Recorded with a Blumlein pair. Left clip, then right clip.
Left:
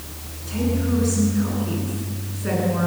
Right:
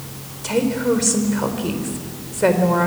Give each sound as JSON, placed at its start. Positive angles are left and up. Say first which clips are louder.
{"t": 0.4, "sound": "a woman speaking", "louder": "right 7 dB", "azimuth_deg": -45, "distance_m": 4.0}